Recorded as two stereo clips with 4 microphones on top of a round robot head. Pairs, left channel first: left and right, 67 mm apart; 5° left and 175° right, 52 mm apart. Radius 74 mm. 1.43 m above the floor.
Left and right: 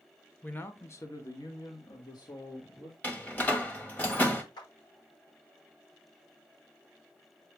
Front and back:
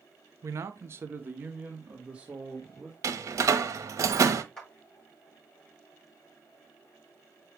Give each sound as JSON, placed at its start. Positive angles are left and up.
{"t": 0.4, "sound": "a man speaking", "azimuth_deg": 160, "distance_m": 1.1}
{"t": 3.0, "sound": "a door slam", "azimuth_deg": 160, "distance_m": 1.4}
{"t": 4.6, "sound": "a clap", "azimuth_deg": 80, "distance_m": 7.0}